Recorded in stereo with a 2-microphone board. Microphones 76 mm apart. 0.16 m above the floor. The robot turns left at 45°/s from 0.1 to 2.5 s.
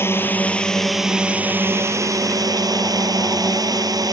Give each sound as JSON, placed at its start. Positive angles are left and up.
{"t": 0.0, "sound": "a drone", "azimuth_deg": 40}